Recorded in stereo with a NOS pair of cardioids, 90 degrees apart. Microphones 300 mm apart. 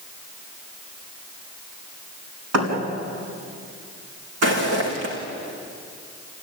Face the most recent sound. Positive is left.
turn(degrees=-60)